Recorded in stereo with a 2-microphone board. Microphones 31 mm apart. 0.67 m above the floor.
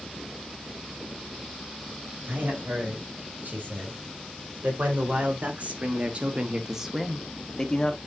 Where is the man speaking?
75° right (ahead or behind), 4.5 m; by 8.0 s 30° left (ahead or behind), 1.5 m.